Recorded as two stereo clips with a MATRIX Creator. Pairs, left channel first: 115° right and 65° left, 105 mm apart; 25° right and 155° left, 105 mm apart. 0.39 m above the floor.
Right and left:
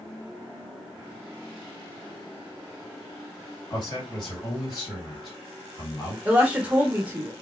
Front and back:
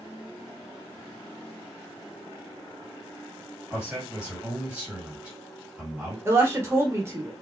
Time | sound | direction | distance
3.7 | a man speaking | 130° right | 1.8 m
6.2 | a woman speaking | 130° left | 0.8 m